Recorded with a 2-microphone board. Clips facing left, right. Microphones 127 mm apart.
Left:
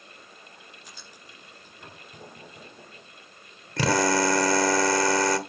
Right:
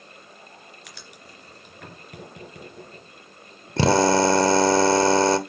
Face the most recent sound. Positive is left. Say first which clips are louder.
# right 5 dB
turn(degrees=-30)  # may be behind; listen again after turning